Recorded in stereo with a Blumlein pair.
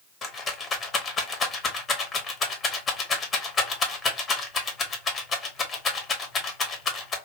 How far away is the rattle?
About 1.1 m.